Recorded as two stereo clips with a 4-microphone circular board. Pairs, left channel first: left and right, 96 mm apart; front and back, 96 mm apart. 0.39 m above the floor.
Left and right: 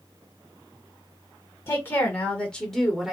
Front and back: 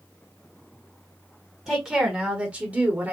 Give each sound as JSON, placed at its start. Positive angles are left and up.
{"t": 1.7, "sound": "a woman speaking", "azimuth_deg": 100, "distance_m": 1.4}